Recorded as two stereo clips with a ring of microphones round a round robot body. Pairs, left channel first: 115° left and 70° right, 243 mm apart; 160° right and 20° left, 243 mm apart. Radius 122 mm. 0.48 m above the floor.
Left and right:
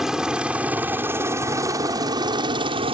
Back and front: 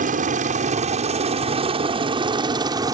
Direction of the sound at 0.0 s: 20° left.